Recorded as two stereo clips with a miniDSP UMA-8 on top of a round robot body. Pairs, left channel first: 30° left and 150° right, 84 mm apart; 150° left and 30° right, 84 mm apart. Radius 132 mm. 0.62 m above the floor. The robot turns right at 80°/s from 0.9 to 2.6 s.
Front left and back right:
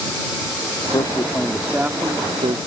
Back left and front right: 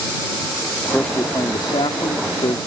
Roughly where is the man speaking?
Ahead left.